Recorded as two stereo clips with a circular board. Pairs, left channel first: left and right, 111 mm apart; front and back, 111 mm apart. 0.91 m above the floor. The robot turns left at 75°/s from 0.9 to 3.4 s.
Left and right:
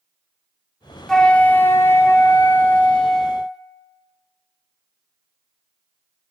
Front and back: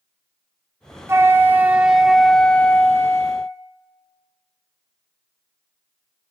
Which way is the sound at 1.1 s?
170° left.